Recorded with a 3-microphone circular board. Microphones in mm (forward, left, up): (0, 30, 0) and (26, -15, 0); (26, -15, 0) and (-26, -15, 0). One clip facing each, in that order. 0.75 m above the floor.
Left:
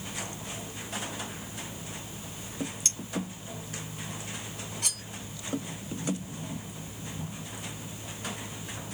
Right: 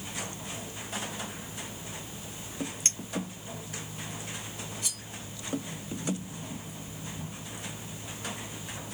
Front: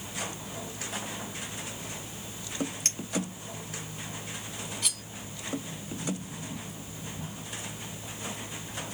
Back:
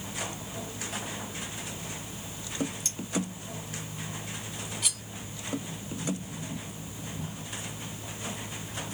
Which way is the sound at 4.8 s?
95° left.